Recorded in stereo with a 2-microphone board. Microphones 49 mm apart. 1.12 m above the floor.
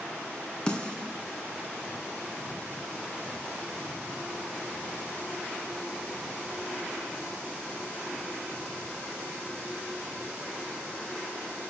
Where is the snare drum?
15° left (ahead or behind), 2.5 m.